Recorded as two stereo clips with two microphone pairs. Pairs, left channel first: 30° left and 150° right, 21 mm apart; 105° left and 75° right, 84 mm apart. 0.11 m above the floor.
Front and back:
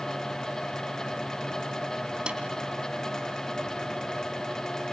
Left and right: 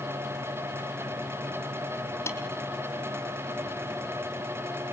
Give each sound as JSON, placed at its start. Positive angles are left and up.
{"t": 2.3, "sound": "a snare drum", "azimuth_deg": 165, "distance_m": 3.5}